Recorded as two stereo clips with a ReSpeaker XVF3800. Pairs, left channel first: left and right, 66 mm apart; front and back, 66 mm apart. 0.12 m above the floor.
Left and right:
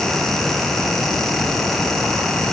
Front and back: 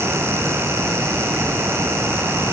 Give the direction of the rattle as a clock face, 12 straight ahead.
No rattle in this recording.